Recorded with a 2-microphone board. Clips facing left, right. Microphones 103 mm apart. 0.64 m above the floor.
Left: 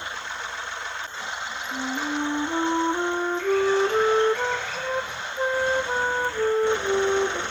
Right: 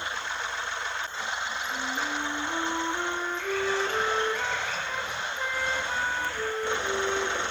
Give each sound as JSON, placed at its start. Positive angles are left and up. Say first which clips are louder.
{"t": 1.7, "sound": "a flute", "louder": "left 7 dB", "side_deg": 35, "distance_m": 0.9}